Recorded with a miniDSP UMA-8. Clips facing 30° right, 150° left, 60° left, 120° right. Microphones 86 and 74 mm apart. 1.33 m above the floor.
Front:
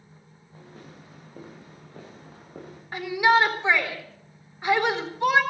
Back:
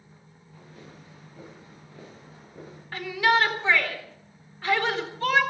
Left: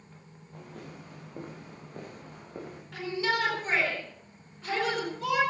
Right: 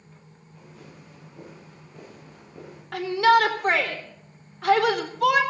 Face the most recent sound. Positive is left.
turn(degrees=-100)